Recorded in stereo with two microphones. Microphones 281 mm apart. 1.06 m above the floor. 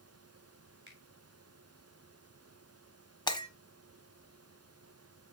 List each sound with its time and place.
0.9 s a finger snap: 40° right (ahead or behind), 3.5 m
3.3 s breaking glass: 15° left (ahead or behind), 1.4 m